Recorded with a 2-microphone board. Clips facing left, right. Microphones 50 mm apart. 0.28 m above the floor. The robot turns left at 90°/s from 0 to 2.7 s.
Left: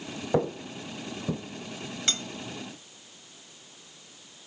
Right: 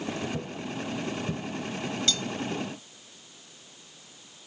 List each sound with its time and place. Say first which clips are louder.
0.3 s footsteps: left 6 dB; 65° left (ahead or behind), 0.7 m; by 1.4 s 15° left (ahead or behind), 2.0 m
2.1 s cutlery clinking: even; 35° left (ahead or behind), 0.8 m; by 2.2 s 25° left (ahead or behind), 0.8 m